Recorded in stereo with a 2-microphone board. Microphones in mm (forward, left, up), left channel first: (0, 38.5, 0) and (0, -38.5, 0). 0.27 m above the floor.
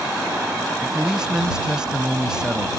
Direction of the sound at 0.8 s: 10° right (ahead or behind).